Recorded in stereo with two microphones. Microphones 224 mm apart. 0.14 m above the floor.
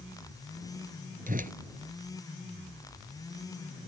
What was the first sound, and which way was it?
A whoosh, 40° right (ahead or behind).